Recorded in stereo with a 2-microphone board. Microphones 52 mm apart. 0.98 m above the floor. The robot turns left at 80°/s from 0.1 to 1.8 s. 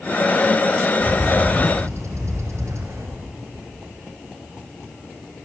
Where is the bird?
40° right, 4 m; by 3.1 s 105° right, 4 m.